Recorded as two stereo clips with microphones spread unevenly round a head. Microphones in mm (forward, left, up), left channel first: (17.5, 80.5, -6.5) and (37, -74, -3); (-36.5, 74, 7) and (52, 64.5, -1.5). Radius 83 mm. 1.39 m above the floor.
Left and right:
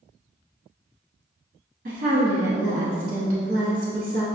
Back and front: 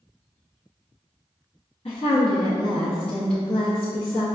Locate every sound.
1.9 s a woman speaking: 130° right, 0.5 m